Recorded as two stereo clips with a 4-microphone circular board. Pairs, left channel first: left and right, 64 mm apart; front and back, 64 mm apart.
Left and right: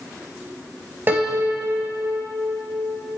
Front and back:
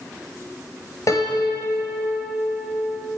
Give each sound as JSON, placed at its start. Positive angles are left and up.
{"t": 1.1, "sound": "a piano", "azimuth_deg": -35, "distance_m": 4.0}